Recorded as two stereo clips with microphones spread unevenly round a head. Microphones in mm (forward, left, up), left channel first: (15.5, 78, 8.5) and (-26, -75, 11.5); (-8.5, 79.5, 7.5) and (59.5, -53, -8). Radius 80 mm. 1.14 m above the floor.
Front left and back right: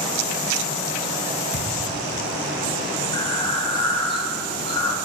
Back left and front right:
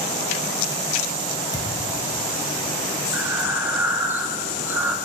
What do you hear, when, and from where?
1.5 s a thud: 65° left, 1.6 m
3.1 s breathing: 10° left, 0.8 m